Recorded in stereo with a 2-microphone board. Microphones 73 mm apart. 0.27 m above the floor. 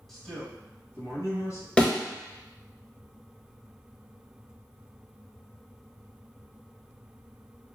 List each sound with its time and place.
0.1 s a man speaking: 5° left (ahead or behind), 1.0 m; by 1.7 s 50° left (ahead or behind), 1.4 m
1.8 s a thud: 15° left (ahead or behind), 1.1 m